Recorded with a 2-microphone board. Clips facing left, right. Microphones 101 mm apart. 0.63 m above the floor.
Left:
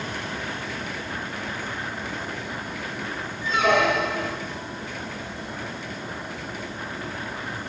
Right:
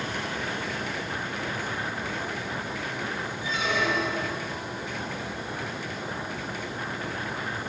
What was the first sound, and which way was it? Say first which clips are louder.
A squeak: left 8 dB; 70° left (ahead or behind).